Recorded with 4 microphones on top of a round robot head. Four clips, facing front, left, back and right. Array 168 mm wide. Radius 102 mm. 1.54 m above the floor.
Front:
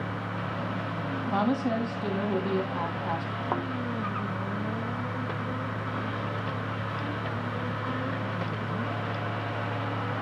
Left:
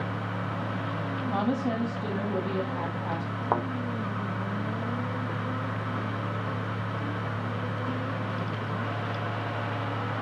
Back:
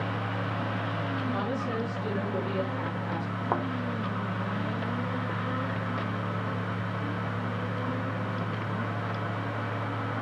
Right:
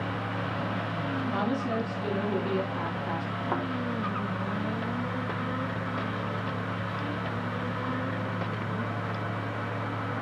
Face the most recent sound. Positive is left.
turn(degrees=100)